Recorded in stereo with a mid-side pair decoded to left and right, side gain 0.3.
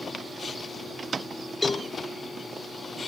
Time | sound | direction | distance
1.6 | a cowbell | 25° left | 1.0 m